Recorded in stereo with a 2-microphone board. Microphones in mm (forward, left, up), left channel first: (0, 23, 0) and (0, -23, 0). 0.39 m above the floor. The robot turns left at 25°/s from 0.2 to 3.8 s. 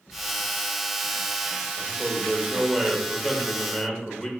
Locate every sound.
1.8 s a man speaking: 145° right, 0.9 m; by 4.3 s 165° left, 0.9 m